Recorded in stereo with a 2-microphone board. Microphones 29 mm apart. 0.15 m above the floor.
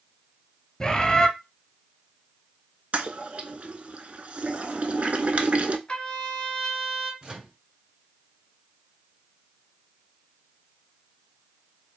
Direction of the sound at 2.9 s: 55° right (ahead or behind).